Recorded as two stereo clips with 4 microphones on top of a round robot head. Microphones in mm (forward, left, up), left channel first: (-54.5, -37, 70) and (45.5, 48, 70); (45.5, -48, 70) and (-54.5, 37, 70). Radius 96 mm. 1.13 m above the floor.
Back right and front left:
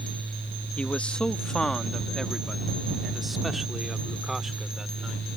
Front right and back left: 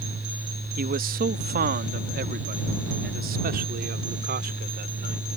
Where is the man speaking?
140° left; by 5.3 s 125° left.